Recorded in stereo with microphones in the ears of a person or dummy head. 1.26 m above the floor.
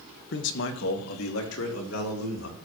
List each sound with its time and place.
0.3 s a man speaking: 60° left (ahead or behind), 1.4 m; by 2.6 s 85° left, 4.5 m